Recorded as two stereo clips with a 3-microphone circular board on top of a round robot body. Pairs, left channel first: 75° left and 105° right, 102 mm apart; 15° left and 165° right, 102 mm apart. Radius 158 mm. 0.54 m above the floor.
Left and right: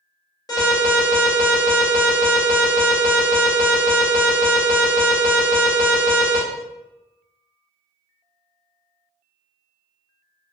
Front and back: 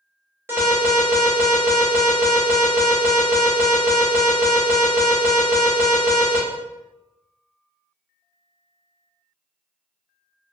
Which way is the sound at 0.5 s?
125° left.